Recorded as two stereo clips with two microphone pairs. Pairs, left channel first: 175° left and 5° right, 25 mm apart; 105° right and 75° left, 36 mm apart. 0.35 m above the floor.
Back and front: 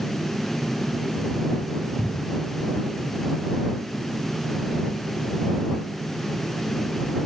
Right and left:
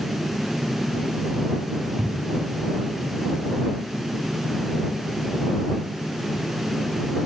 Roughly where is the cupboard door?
Left.